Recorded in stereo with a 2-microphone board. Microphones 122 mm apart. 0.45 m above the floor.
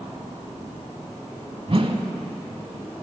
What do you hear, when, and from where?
1.7 s a whoosh: 50° right (ahead or behind), 0.9 m